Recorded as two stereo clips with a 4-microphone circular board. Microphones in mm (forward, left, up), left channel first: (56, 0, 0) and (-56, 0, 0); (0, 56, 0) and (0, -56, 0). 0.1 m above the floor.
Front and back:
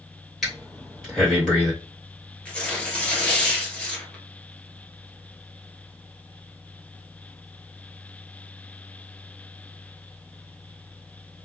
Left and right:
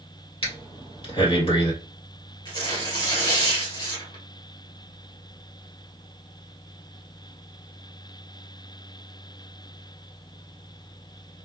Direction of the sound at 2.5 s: 75° left.